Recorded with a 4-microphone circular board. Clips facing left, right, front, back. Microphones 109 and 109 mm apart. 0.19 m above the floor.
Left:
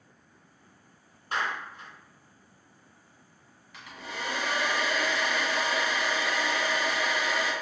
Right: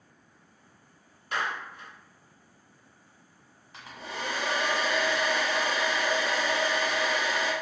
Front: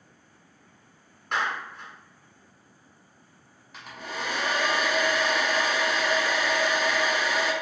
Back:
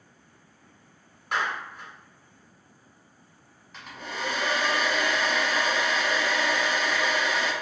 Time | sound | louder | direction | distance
1.3 | a clap | even, even | 95° left | 1.4 m
3.7 | a hair dryer | right 1 dB, even | 80° right | 1.1 m